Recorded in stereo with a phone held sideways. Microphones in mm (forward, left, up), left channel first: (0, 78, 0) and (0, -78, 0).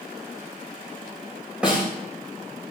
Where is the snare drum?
5° right (ahead or behind), 4 m.